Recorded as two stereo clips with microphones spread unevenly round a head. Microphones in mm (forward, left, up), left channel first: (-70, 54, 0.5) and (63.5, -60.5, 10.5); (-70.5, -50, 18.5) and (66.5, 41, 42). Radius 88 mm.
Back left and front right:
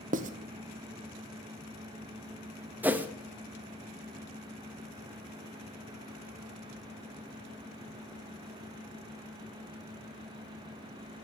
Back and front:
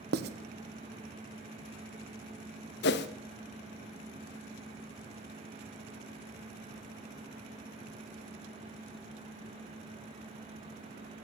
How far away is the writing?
About 1.0 m.